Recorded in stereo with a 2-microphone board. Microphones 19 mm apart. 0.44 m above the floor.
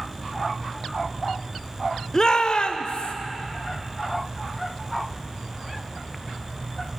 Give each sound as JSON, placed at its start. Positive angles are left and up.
{"t": 2.1, "sound": "a shout", "side_deg": 30, "distance_m": 0.8}